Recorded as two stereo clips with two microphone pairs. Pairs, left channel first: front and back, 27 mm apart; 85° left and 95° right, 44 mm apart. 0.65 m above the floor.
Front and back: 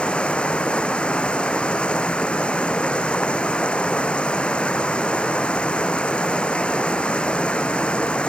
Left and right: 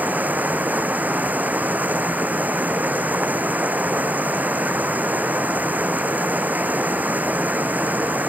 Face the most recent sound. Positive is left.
turn(degrees=-45)